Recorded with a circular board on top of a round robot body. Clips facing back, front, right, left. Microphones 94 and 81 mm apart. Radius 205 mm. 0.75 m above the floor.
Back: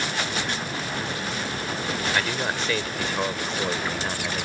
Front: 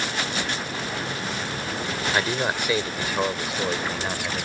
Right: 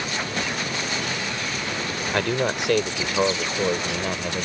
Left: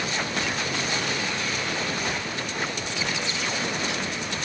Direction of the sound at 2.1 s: 75° right.